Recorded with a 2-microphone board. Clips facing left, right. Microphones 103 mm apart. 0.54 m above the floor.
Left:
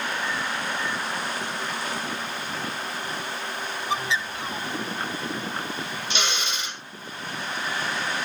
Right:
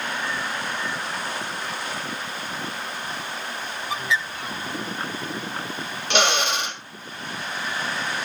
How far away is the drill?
About 1.4 m.